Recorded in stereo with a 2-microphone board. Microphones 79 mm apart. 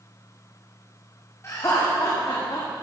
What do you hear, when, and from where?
1.4 s laughter: 40° left (ahead or behind), 2.5 m; by 2.7 s 65° left (ahead or behind), 1.7 m